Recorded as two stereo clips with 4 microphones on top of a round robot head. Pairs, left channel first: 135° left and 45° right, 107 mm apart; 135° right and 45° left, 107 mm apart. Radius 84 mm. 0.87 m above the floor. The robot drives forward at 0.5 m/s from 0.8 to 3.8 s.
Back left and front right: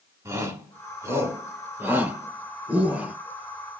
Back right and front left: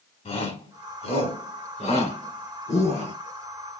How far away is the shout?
About 3.5 m.